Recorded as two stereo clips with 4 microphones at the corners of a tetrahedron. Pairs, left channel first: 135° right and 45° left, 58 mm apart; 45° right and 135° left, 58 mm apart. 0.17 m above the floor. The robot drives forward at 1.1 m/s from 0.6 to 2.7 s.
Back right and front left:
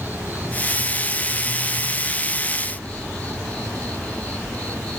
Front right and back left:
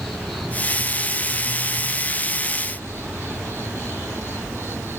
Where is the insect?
35° left, 1.6 m; by 5.0 s 165° left, 2 m.